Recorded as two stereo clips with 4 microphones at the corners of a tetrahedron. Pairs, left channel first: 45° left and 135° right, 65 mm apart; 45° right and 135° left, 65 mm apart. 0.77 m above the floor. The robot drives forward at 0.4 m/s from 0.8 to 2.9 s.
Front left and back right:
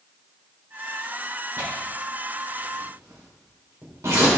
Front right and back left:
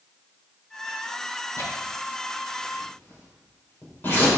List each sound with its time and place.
1.6 s tearing paper: 85° right, 3.5 m; by 4.3 s 95° right, 3.5 m